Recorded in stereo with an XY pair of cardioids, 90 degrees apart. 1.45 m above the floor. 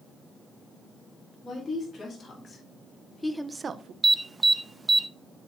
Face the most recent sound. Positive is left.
turn(degrees=-20)